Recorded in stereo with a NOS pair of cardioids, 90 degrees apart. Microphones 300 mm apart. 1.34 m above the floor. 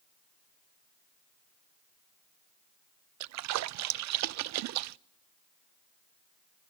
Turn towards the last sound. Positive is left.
turn(degrees=-65)